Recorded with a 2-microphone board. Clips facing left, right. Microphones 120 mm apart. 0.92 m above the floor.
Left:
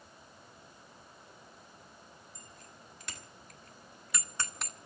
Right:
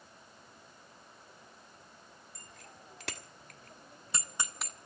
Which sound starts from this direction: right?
A bicycle bell, at 2.4 s.